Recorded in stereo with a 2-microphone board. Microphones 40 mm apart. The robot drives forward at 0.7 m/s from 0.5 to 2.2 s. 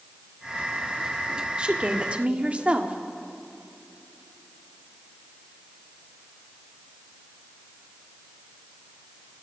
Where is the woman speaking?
25° right (ahead or behind), 2 m; by 3.0 s 30° right (ahead or behind), 1.9 m.